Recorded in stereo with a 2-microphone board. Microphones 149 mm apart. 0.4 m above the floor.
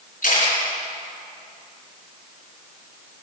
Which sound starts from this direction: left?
A camera shutter, at 0.2 s.